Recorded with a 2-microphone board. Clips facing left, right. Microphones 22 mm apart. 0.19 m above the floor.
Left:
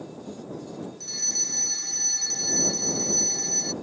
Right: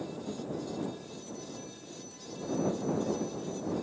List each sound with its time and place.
1.0 s a fire alarm: 80° left